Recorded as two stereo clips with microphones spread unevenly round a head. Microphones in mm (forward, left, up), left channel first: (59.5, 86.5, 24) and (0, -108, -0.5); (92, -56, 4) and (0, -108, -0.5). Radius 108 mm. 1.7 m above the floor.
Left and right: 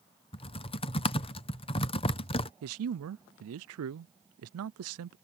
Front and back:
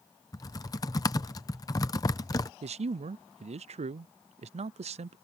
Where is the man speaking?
130° right.